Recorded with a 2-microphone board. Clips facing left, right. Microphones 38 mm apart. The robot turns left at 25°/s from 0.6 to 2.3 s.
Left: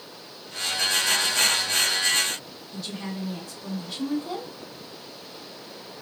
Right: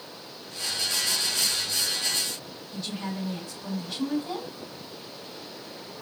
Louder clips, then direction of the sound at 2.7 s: Even; 5° left (ahead or behind).